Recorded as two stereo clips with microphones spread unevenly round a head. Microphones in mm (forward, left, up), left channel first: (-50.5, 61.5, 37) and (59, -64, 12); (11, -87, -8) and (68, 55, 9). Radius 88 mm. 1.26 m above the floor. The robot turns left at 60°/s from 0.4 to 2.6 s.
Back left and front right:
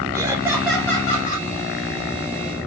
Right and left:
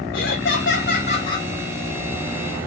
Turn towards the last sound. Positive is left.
turn(degrees=105)